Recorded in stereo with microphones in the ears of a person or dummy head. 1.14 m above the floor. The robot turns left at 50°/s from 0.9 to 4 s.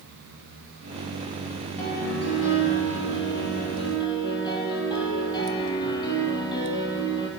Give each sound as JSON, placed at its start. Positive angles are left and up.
{"t": 1.8, "sound": "a piano", "azimuth_deg": 135, "distance_m": 6.5}